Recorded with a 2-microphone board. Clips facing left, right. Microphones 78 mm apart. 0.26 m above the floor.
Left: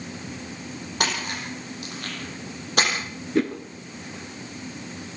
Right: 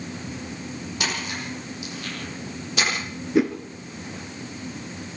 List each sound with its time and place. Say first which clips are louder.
1.0 s a splash: left 3 dB; 55° left (ahead or behind), 9 m
3.4 s a whoosh: right 3 dB; 10° right (ahead or behind), 1.9 m